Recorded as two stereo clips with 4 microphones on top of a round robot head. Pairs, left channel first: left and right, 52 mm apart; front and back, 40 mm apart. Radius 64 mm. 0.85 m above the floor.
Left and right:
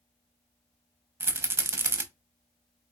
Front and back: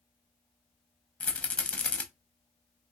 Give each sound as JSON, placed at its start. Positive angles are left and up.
{"t": 1.2, "sound": "a rattle", "azimuth_deg": -55, "distance_m": 0.7}